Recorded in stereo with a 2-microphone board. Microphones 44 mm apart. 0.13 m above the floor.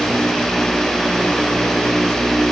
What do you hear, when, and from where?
Only background noise.